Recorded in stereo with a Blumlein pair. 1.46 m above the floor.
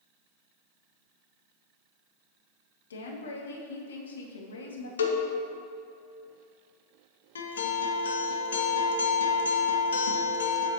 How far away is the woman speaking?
About 1.0 m.